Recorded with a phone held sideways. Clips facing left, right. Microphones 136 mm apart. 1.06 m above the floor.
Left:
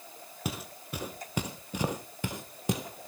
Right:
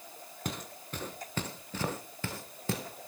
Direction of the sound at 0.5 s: 5° left (ahead or behind).